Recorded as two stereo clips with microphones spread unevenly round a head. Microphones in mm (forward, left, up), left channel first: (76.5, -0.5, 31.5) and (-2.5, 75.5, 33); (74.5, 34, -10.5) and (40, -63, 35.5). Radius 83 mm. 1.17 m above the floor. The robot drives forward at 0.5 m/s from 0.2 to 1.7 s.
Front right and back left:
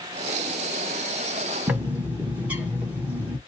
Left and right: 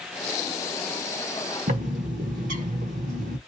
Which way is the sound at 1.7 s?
145° right.